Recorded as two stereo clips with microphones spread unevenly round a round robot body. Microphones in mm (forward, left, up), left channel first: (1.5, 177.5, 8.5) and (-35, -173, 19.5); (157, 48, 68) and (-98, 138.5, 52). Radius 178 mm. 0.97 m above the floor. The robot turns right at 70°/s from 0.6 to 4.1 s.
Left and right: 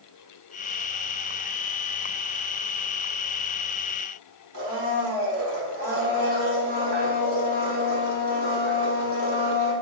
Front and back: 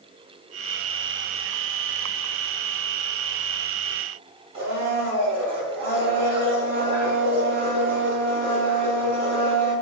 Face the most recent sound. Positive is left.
turn(degrees=-125)